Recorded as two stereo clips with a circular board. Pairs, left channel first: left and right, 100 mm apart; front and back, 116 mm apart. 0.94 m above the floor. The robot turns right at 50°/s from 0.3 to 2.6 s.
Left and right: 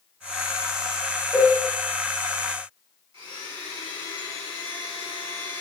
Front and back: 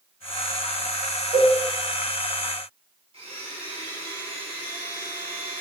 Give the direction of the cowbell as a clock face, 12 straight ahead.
12 o'clock.